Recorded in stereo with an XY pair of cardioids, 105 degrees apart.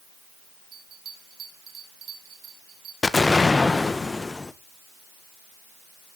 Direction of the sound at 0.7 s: 65° right.